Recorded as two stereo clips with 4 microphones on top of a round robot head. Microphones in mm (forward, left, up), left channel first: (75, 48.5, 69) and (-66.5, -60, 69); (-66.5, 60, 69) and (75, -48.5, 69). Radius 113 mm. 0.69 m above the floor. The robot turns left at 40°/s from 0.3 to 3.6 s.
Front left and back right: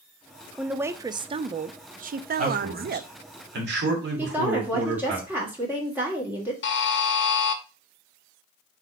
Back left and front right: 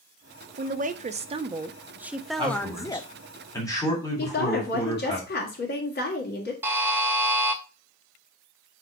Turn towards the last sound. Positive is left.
turn(degrees=40)